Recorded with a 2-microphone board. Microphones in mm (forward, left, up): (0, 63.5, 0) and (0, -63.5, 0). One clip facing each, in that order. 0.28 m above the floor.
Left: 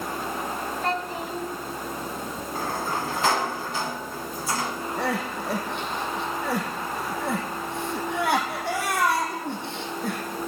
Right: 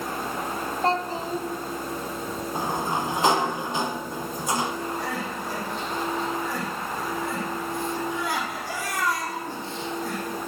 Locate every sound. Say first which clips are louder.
0.8 s a child speaking: right 5 dB; 30° right (ahead or behind), 1.5 m
2.5 s a sliding door: right 1 dB; 20° right (ahead or behind), 1.0 m
5.0 s crying: left 3 dB; 70° left (ahead or behind), 2 m